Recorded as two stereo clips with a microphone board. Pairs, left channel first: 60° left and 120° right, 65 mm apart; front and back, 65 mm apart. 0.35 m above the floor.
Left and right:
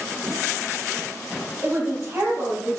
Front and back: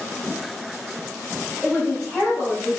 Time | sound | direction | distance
1.6 | a woman speaking | 75° right | 2.0 m